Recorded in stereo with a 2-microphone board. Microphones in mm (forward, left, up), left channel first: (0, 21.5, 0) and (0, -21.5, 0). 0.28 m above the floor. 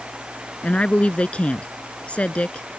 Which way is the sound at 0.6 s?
30° left (ahead or behind).